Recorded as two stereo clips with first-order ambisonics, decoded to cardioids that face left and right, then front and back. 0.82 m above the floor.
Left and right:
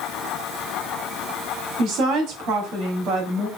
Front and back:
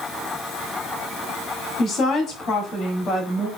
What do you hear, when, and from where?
1.8 s a woman speaking: 60° right, 2 m